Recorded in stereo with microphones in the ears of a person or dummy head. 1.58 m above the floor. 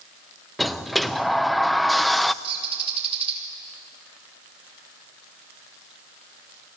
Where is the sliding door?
5° right (ahead or behind), 0.5 m.